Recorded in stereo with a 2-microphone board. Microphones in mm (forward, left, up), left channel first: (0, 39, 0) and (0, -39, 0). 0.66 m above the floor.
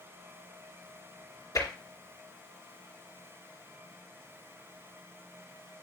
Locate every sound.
1.6 s tapping: 45° left (ahead or behind), 2.5 m